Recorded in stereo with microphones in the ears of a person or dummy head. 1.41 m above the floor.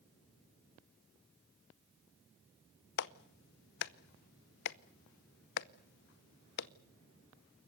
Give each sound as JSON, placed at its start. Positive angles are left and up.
{"t": 3.0, "sound": "a clap", "side_deg": 55, "distance_m": 0.7}